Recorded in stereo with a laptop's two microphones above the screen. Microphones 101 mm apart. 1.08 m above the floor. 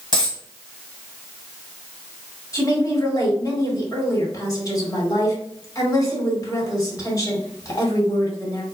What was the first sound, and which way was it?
A dropped coin, 50° left (ahead or behind).